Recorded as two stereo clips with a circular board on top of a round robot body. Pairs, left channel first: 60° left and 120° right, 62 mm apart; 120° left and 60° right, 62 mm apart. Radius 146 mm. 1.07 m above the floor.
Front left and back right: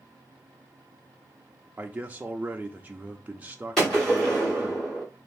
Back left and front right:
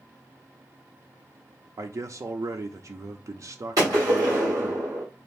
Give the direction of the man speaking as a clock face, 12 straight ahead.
2 o'clock.